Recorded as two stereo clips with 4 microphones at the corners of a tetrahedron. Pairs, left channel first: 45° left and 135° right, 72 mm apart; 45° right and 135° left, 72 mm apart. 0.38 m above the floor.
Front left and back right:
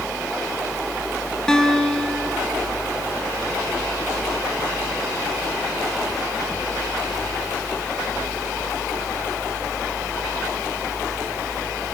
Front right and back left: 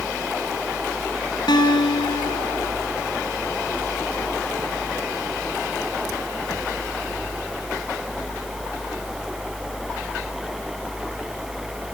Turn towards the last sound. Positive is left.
turn(degrees=-35)